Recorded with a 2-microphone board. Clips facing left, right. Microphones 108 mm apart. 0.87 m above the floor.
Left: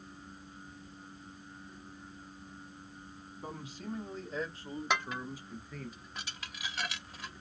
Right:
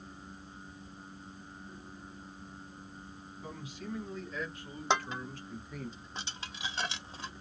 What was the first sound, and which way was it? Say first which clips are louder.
A man speaking: left 1 dB; 45° left (ahead or behind).